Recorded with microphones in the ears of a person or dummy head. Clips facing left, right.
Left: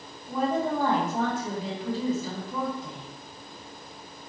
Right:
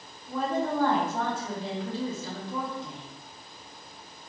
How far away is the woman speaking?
About 1.7 m.